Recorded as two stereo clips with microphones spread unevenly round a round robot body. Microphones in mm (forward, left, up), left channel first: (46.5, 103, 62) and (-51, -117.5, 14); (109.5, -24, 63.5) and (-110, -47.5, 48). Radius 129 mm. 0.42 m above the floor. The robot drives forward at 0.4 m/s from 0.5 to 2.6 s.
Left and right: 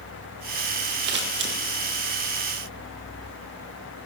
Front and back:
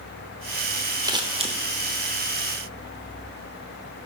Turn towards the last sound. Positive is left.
turn(degrees=-145)